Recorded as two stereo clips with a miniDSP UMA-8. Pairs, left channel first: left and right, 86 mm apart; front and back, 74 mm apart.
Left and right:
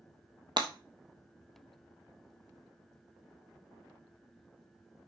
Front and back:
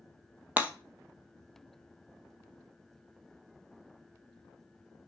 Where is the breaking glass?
115° right, 1.3 m.